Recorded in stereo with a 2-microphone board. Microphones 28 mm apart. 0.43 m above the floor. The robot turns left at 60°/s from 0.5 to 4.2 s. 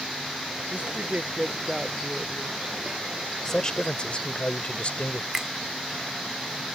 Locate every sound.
0.7 s a woman speaking: 100° right; by 2.6 s 150° left
3.5 s a man speaking: 155° left; by 5.2 s 110° left
5.3 s a finger snap: 20° right (ahead or behind)